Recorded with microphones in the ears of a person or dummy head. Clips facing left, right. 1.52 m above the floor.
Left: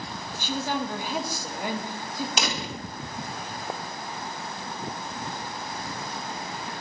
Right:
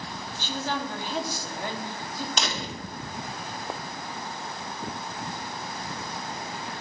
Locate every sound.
0.3 s a woman speaking: 15° left (ahead or behind), 1.1 m
2.4 s a door slam: 15° left (ahead or behind), 1.2 m